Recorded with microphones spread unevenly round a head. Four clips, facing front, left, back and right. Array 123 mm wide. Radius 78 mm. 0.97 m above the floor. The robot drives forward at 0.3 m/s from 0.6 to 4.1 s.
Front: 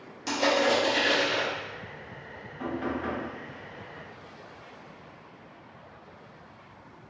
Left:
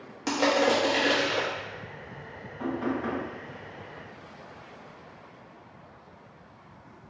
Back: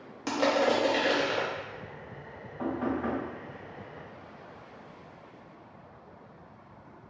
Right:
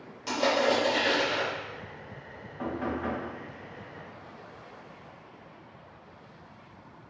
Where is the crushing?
110° left, 1.1 m; by 1.5 s 125° left, 1.2 m.